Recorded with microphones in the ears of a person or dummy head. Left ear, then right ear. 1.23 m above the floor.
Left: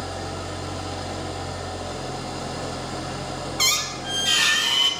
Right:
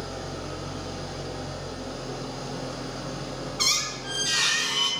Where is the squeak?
15° left (ahead or behind), 1.5 m.